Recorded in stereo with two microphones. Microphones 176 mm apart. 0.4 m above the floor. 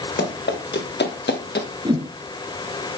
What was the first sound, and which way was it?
Running footsteps, 85° left.